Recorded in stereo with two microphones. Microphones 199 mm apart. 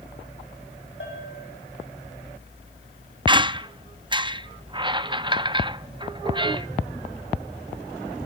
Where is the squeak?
25° right (ahead or behind), 0.6 m.